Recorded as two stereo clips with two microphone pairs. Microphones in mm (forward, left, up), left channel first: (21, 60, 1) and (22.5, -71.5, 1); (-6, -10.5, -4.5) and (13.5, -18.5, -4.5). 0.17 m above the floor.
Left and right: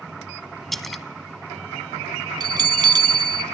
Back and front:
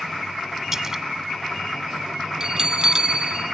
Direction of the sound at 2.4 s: 55° right.